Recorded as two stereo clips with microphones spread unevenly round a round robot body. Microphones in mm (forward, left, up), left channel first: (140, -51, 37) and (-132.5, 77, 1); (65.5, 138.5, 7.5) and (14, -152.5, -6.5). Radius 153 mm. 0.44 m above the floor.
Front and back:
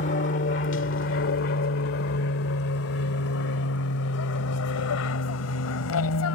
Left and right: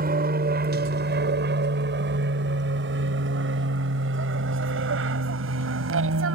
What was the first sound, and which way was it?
An aircraft, 60° right.